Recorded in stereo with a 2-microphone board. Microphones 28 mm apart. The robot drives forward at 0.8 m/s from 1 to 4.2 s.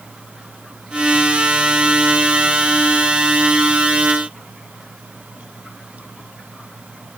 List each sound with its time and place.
Only background noise.